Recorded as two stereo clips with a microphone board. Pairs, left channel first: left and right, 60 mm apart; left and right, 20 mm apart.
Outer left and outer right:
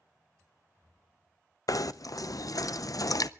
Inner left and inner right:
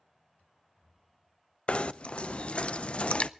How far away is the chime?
I don't hear a chime.